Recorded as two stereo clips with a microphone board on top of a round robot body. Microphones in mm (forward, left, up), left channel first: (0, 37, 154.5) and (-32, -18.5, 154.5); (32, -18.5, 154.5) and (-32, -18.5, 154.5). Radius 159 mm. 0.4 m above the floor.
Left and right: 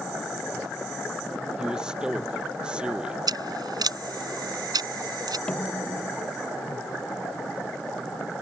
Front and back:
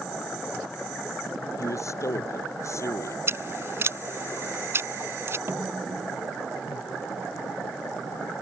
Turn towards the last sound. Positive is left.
turn(degrees=135)